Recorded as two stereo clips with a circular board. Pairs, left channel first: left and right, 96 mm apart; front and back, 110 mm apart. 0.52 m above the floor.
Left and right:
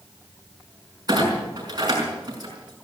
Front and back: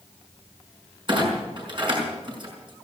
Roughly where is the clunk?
Behind right.